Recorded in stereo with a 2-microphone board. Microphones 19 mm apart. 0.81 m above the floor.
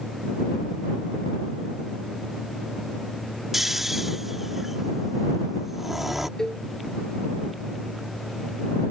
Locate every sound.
3.5 s snoring: 15° right (ahead or behind)
6.4 s a cowbell: 30° left (ahead or behind)